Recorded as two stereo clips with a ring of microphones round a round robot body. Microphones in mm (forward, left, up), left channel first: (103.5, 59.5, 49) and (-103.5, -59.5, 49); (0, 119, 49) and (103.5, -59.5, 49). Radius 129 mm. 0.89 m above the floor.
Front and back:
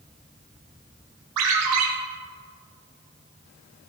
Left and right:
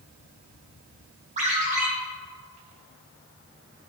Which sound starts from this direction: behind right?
A ringtone, at 1.4 s.